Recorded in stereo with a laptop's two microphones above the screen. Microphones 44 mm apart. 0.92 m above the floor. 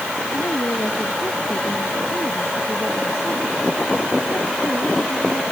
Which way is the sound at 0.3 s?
85° left.